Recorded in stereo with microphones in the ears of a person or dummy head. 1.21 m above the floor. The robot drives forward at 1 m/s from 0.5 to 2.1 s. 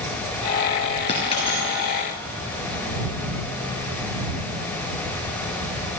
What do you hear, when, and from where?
1.1 s a dropped coin: 30° left (ahead or behind), 2 m; by 1.9 s 20° left (ahead or behind), 3 m